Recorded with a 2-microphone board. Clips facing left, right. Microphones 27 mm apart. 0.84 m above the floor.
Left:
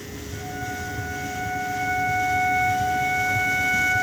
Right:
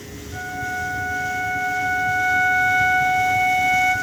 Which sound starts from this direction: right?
A flute, at 0.3 s.